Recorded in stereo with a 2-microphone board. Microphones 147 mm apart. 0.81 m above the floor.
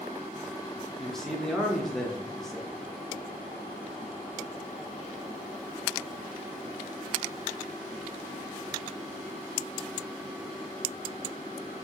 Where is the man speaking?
5° left (ahead or behind), 0.6 m.